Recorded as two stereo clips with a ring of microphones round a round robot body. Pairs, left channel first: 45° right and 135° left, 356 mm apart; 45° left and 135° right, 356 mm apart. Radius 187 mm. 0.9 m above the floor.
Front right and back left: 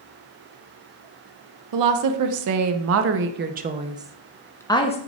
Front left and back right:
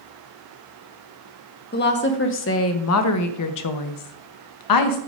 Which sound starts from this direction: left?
A woman speaking, at 1.7 s.